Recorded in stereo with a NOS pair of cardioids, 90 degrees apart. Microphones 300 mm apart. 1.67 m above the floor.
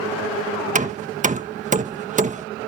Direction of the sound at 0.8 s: 25° right.